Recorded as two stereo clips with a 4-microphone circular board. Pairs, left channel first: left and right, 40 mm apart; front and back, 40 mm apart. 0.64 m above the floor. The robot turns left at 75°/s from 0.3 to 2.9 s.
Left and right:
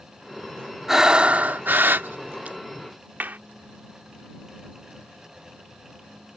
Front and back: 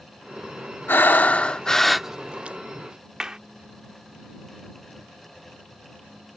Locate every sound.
0.9 s breathing: 10° right; by 2.6 s 135° right
3.2 s a clap: 110° right